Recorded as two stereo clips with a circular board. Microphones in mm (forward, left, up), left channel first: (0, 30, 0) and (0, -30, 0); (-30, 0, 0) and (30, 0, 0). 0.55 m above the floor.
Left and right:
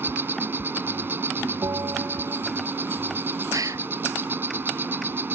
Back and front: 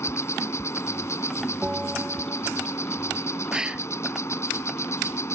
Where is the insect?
140° right.